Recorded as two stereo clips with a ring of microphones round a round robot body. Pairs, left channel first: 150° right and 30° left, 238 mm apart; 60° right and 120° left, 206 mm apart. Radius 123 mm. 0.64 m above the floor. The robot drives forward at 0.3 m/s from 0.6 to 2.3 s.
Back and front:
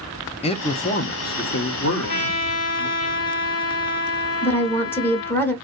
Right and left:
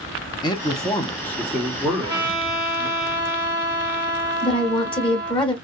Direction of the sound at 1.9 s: 170° right.